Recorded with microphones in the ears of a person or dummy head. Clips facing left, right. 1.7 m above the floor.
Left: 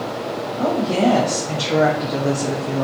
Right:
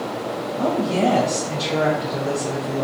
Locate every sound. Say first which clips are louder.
0.6 s a woman speaking: left 2 dB; 10° left (ahead or behind), 0.8 m; by 2.9 s 60° left (ahead or behind), 0.9 m